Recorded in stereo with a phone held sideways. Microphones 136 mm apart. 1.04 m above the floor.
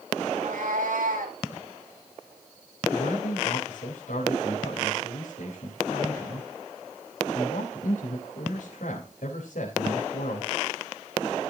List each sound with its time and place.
0.3 s a cat meowing: 70° right (ahead or behind), 2.5 m; by 1.4 s 80° right, 3.5 m
2.9 s a man speaking: 75° left (ahead or behind), 4 m